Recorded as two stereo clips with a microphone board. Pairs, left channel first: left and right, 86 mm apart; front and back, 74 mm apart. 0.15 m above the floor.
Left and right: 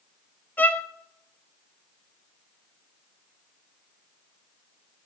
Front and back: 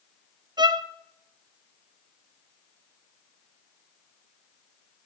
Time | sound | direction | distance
0.6 | a violin | 160° left | 0.6 m